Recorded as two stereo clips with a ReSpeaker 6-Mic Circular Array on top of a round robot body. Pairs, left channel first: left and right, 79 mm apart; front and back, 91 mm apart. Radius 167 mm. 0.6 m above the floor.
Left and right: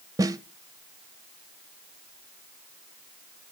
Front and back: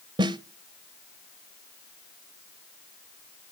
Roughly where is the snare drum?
Behind right.